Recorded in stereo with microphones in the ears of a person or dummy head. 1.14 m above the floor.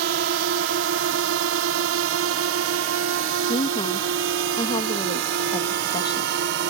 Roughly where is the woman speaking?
Left.